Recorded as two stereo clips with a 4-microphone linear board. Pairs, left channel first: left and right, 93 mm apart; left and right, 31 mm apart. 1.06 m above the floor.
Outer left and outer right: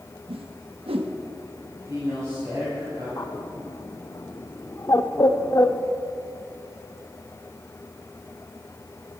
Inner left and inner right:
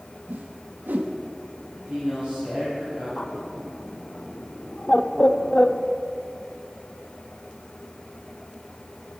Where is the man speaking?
35° right (ahead or behind), 6.5 m.